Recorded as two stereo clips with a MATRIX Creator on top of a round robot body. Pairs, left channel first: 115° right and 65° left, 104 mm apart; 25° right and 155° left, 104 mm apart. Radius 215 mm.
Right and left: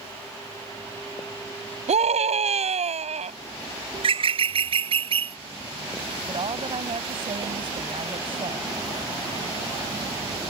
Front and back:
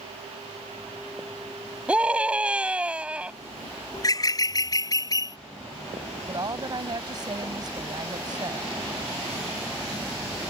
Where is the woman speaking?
105° left.